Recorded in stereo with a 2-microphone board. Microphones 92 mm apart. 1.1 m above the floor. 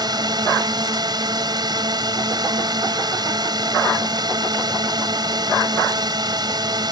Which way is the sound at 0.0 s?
45° right (ahead or behind).